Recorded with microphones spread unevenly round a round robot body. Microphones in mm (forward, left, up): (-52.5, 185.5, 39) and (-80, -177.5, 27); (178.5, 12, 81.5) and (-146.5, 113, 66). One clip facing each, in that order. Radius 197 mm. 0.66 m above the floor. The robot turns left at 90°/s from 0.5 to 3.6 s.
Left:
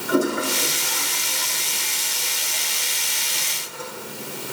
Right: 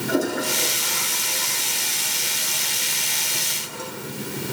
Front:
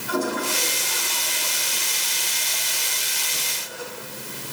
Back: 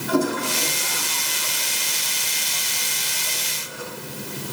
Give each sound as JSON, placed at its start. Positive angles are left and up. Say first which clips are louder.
{"t": 0.1, "sound": "a toilet flushing", "louder": "left 3 dB, back 4 dB", "azimuth_deg": 165, "distance_m": 5.5}